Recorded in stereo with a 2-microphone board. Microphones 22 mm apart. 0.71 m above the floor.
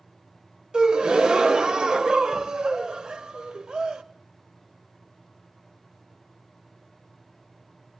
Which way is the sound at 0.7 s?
35° right (ahead or behind).